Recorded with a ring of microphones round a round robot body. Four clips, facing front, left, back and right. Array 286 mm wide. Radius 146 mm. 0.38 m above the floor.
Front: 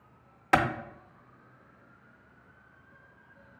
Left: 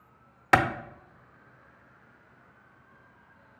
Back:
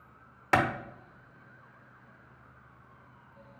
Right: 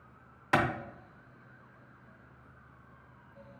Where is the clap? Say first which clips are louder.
Left 6 dB, front 1 dB; 90° left, 0.7 m.